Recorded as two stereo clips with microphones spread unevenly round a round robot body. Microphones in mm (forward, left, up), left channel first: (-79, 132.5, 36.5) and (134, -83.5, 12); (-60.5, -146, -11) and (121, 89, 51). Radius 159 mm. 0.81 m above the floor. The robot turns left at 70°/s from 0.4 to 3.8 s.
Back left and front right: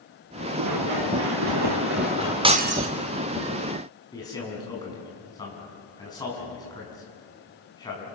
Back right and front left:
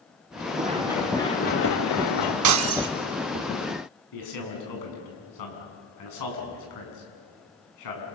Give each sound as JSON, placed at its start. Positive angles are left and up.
{"t": 0.6, "sound": "running footsteps", "azimuth_deg": -5, "distance_m": 5.5}
{"t": 2.4, "sound": "breaking glass", "azimuth_deg": 30, "distance_m": 1.2}
{"t": 4.1, "sound": "a man speaking", "azimuth_deg": -145, "distance_m": 7.0}